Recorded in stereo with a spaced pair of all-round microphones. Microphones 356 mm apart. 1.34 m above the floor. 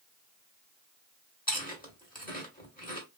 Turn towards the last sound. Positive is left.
turn(degrees=25)  # may be behind; listen again after turning